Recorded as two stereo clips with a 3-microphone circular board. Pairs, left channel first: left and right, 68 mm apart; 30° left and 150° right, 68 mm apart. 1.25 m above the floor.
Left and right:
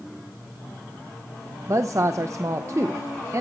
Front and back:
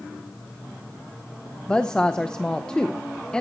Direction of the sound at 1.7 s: 50° right.